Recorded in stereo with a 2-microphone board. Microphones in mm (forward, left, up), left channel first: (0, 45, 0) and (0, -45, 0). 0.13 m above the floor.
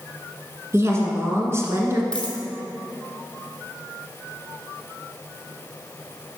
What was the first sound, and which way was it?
A woman speaking, 30° right (ahead or behind).